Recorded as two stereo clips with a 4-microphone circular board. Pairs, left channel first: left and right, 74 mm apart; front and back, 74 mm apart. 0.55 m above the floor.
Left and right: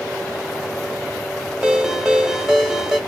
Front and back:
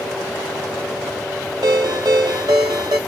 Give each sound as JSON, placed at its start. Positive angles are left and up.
{"t": 1.6, "sound": "a ringtone", "azimuth_deg": -170, "distance_m": 1.1}